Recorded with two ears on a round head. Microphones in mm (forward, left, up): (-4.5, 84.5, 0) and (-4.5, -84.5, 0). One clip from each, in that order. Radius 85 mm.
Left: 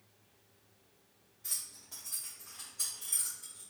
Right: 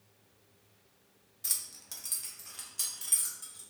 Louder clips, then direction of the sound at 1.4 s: Right 4 dB; 65° right (ahead or behind).